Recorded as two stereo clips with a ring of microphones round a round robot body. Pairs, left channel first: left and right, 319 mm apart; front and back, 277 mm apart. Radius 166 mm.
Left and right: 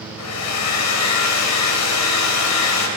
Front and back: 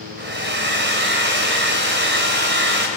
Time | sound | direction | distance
0.2 | a hair dryer | 130° left | 3.5 m